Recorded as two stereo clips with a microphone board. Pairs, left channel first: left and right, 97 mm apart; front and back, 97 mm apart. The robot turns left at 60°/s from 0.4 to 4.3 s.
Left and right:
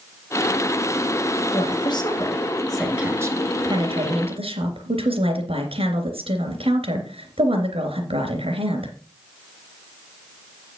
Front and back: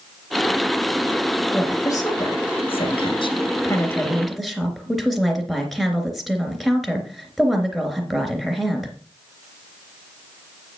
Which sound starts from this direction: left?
A woman speaking, at 1.5 s.